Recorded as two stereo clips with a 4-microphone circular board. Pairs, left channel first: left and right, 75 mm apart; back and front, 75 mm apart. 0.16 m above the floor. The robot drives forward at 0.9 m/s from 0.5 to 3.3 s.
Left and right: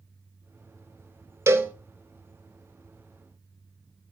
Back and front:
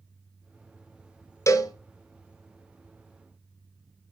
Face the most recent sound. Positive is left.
turn(degrees=-170)